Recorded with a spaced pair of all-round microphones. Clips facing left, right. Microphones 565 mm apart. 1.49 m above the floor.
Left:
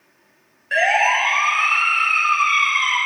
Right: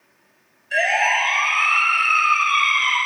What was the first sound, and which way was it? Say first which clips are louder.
A siren: left 2 dB; 75° left (ahead or behind).